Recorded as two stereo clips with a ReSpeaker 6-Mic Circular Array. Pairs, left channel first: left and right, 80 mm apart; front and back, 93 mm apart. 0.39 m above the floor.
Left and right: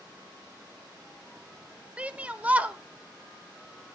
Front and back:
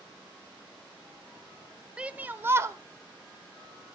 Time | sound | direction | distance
2.0 | a shout | 125° right | 0.9 m